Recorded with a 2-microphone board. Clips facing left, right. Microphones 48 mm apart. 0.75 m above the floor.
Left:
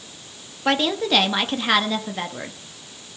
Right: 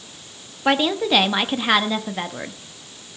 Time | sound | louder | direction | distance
0.7 | a woman speaking | right 2 dB | 10° right (ahead or behind) | 1.2 m